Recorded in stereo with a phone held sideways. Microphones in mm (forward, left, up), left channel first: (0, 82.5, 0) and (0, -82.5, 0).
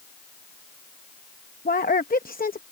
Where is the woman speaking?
60° left (ahead or behind).